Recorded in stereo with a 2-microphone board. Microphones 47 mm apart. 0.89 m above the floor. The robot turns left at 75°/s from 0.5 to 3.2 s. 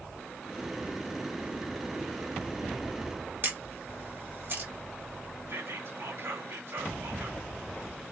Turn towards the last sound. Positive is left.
turn(degrees=-65)  # may be behind; listen again after turning